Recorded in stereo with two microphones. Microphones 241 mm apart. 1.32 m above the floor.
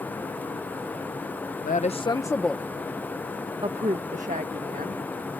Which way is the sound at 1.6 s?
35° left (ahead or behind).